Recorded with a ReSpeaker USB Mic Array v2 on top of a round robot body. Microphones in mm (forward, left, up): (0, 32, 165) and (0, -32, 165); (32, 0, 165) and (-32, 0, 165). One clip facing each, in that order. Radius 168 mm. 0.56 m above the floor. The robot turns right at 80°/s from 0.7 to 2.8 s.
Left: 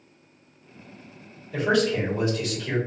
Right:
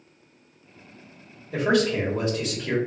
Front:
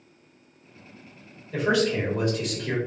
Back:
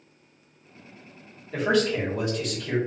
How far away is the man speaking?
About 1.5 m.